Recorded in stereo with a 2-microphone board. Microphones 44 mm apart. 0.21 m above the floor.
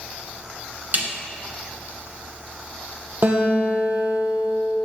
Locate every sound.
0.9 s a snare drum: 45° right (ahead or behind), 2.0 m
3.2 s a guitar: 50° right (ahead or behind), 2.5 m